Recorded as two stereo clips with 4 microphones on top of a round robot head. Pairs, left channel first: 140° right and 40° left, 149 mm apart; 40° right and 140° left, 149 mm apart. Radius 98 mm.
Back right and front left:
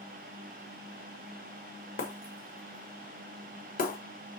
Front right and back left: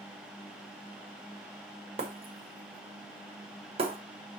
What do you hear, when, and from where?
2.0 s breaking glass: 170° right, 1.6 m